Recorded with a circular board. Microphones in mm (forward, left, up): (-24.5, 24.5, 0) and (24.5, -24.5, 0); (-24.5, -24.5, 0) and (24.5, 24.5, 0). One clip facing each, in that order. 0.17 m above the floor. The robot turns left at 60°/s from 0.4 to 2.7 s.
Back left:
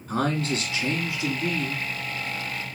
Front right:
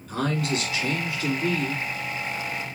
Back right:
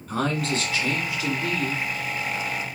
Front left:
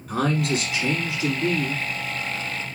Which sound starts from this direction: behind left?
A man speaking, at 0.1 s.